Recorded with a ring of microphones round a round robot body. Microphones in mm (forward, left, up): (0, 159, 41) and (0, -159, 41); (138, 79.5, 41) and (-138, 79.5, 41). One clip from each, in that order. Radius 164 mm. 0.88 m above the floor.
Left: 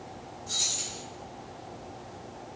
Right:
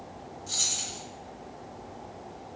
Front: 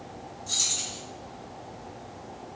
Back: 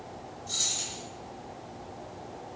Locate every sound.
0.5 s keys jangling: 15° right, 2 m